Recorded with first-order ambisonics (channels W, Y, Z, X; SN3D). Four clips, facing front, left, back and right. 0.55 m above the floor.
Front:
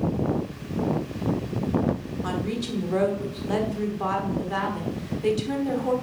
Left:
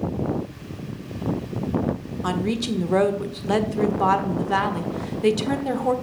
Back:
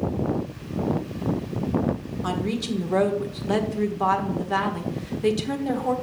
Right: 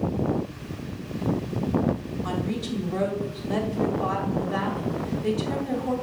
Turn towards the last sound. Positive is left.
turn(degrees=105)